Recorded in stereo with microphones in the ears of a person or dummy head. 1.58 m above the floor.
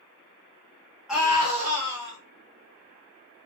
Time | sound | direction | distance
1.1 | a scream | 5° right (ahead or behind) | 0.6 m